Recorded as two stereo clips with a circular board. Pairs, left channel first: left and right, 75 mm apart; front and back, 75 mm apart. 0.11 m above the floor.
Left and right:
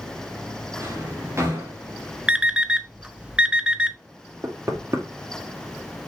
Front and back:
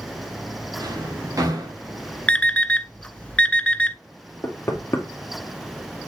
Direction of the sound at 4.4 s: 50° right.